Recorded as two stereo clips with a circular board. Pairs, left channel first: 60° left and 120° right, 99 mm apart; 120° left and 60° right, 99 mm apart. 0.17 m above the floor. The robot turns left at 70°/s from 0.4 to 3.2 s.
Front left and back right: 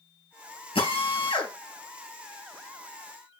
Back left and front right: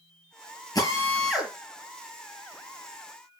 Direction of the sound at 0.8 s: 75° left.